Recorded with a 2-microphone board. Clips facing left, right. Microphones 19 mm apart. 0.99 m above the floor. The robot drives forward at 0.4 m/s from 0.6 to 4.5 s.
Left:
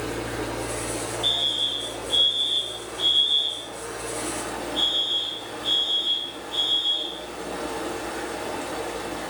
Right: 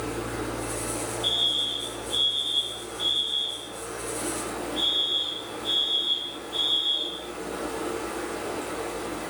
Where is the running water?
75° left (ahead or behind), 2.0 m; by 9.3 s 45° left (ahead or behind), 2.5 m.